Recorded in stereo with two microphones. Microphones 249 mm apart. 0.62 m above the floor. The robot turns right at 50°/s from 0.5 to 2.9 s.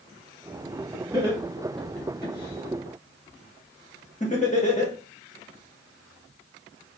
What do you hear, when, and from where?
1.1 s laughter: 15° right (ahead or behind), 1.4 m; by 4.9 s 30° left (ahead or behind), 1.4 m